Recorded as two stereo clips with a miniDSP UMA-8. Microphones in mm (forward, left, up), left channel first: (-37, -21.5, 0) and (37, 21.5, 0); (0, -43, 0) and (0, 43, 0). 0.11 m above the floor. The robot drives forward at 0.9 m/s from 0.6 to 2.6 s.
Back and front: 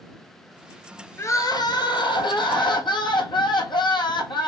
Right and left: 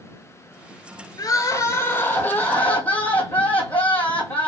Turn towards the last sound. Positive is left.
turn(degrees=-165)